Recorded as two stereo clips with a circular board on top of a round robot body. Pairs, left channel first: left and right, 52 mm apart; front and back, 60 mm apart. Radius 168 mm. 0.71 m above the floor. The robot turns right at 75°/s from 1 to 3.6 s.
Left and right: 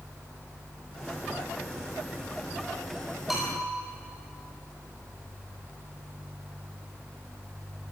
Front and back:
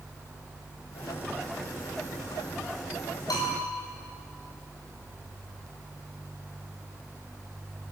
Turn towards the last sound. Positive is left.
turn(degrees=20)